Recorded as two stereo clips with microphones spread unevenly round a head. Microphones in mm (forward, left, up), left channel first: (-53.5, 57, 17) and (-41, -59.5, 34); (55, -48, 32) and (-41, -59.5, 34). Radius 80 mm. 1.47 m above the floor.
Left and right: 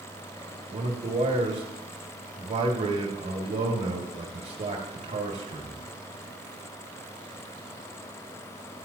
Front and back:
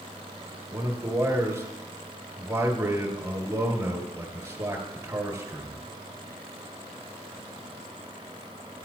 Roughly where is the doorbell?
No doorbell in this recording.